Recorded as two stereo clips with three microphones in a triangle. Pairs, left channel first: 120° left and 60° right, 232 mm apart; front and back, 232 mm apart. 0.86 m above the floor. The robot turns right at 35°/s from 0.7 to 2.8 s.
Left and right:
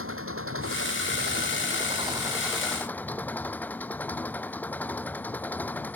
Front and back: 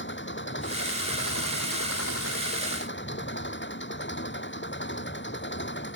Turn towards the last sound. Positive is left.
turn(degrees=35)